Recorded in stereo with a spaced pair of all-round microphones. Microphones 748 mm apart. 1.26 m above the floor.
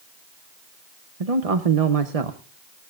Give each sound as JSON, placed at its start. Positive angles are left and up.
{"t": 1.2, "sound": "a man speaking", "side_deg": -50, "distance_m": 1.0}